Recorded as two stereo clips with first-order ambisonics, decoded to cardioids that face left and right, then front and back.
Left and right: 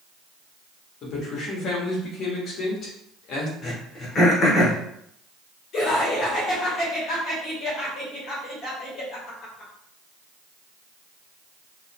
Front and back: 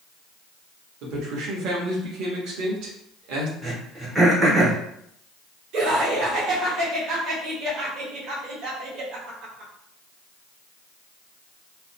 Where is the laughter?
140° left, 1.4 m.